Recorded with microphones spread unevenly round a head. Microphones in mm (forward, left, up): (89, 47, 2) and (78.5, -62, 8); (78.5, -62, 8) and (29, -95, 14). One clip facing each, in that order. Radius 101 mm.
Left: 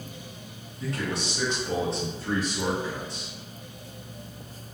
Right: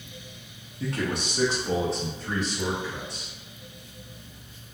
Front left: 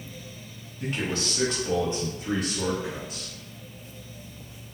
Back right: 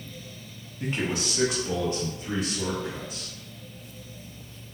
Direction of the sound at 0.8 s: 80° right.